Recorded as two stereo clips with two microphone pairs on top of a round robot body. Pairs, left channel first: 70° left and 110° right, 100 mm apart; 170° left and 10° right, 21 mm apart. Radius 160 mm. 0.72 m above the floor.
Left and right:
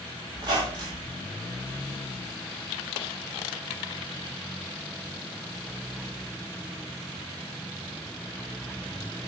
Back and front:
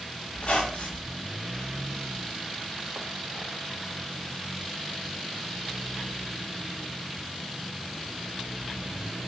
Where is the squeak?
160° right, 1.4 m.